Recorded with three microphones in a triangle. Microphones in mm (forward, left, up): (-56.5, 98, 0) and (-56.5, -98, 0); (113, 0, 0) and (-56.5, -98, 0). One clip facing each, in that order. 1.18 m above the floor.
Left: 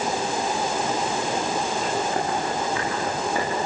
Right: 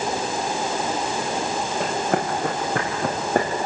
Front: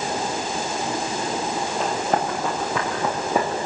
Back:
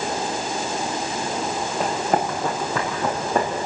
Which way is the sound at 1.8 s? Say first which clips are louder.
Right 2 dB, back 2 dB; 70° right.